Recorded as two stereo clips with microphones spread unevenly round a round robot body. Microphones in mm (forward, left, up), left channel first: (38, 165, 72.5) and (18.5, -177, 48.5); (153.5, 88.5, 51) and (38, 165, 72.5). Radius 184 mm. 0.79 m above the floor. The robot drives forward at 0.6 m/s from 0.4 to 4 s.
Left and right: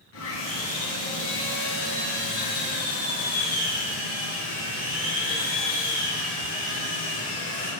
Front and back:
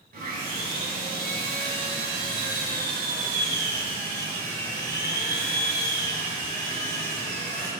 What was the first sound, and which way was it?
Sawing, 140° left.